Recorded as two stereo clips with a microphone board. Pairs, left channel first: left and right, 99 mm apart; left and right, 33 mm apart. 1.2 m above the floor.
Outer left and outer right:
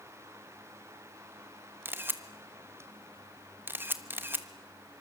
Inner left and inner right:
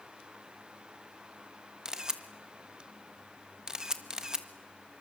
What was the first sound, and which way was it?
A camera shutter, 20° right (ahead or behind).